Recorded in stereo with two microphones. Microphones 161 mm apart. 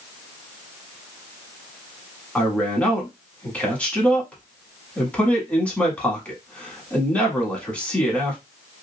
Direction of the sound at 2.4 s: 10° left (ahead or behind).